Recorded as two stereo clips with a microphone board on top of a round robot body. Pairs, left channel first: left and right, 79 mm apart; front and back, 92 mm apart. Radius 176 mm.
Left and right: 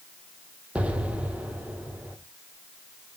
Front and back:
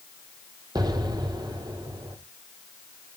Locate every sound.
0.8 s an explosion: 160° right, 1.9 m